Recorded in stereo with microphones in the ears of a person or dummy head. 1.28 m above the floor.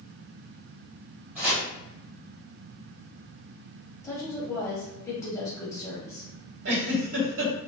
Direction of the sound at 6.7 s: 75° right (ahead or behind).